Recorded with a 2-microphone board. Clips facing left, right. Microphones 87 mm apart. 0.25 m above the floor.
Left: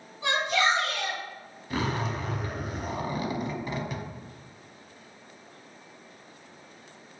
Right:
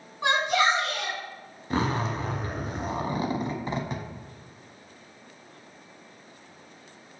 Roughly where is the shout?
Right.